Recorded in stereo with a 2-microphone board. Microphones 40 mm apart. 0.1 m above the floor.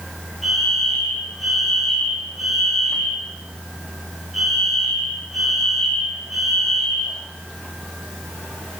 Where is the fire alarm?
5° right (ahead or behind), 9 m.